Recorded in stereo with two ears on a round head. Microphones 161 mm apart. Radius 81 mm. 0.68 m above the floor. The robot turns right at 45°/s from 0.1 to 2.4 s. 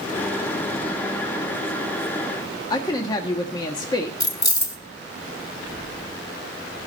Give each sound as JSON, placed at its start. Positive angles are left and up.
{"t": 2.7, "sound": "a woman speaking", "side_deg": 20, "distance_m": 1.3}
{"t": 4.2, "sound": "keys jangling", "side_deg": 20, "distance_m": 1.3}